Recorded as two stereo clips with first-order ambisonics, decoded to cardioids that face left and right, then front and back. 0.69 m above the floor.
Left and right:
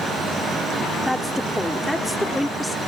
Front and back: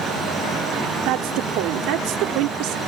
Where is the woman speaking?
Straight behind.